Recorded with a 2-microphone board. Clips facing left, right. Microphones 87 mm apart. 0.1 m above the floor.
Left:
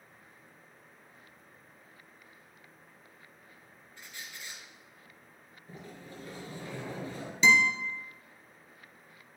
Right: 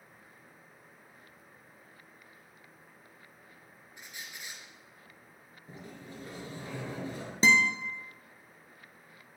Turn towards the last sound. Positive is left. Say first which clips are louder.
# left 1 dB
turn(degrees=-40)  # may be behind; listen again after turning